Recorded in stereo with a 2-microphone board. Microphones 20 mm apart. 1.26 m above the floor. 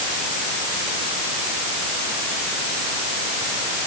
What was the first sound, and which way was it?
Only background noise.